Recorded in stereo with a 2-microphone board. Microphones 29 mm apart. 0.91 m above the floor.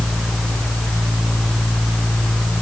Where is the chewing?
I don't hear chewing.